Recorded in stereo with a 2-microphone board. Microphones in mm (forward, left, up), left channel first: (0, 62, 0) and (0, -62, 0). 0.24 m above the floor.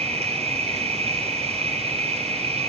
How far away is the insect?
About 4.5 m.